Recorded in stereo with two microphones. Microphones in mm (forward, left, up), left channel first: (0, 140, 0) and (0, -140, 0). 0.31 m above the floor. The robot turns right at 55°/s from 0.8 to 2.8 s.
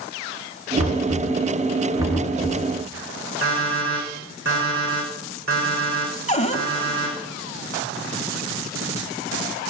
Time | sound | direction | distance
0.8 | knocking | 75° right (ahead or behind) | 2 m
3.4 | an alarm clock | 50° right (ahead or behind) | 8 m
6.3 | a cupboard door | 25° left (ahead or behind) | 0.9 m